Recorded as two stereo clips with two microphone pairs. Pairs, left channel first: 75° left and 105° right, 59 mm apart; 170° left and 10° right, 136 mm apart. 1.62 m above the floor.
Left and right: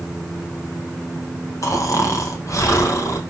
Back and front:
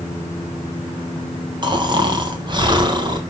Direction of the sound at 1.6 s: 45° left.